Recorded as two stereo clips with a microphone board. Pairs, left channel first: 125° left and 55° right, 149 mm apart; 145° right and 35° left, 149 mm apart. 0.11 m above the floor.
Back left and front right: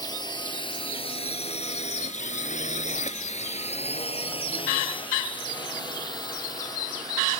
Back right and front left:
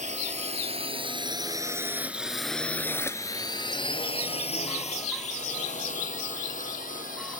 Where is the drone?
65° left; by 7.4 s 170° right.